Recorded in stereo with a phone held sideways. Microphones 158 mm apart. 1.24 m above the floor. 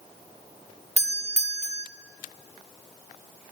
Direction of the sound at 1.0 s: 45° right (ahead or behind).